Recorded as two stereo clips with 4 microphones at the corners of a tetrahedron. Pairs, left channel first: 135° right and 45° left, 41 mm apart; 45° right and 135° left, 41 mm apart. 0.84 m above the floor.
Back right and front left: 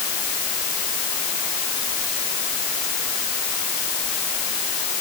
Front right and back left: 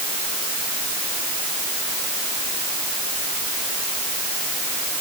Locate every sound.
Only background noise.